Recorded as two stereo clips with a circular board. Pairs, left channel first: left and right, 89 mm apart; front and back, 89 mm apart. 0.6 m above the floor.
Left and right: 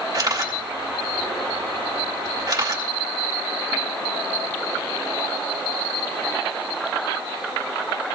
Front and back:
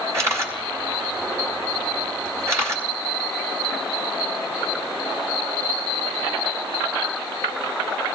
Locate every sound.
0.1 s a camera shutter: 130° right, 2.5 m